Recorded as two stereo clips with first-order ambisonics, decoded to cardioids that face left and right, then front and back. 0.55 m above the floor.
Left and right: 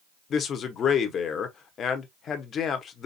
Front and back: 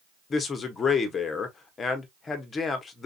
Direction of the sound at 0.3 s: 55° left.